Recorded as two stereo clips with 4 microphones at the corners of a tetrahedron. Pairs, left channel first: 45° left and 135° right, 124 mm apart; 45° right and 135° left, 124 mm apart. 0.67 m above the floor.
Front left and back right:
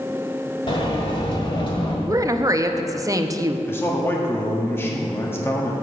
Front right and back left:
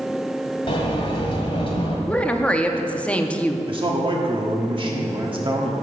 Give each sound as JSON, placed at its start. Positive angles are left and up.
{"t": 0.7, "sound": "a sliding door", "azimuth_deg": 0, "distance_m": 1.7}
{"t": 2.1, "sound": "a woman speaking", "azimuth_deg": -110, "distance_m": 0.5}
{"t": 3.7, "sound": "a man speaking", "azimuth_deg": 110, "distance_m": 1.3}